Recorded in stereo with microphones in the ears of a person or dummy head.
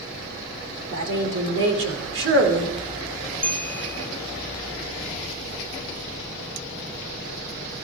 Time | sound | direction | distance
0.9 | a woman speaking | 70° right (ahead or behind) | 3 m
3.4 | a bell | 10° left (ahead or behind) | 0.7 m